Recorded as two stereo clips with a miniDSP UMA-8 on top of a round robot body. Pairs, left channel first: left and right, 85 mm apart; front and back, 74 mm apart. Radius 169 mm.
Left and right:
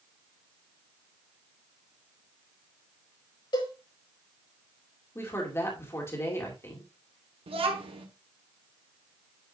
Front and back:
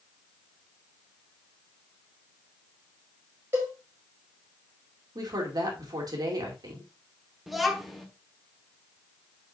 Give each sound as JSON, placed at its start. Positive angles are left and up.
{"t": 3.5, "sound": "a cowbell", "azimuth_deg": 120, "distance_m": 5.0}
{"t": 5.2, "sound": "a woman speaking", "azimuth_deg": 150, "distance_m": 2.5}
{"t": 7.5, "sound": "a child speaking", "azimuth_deg": -90, "distance_m": 1.6}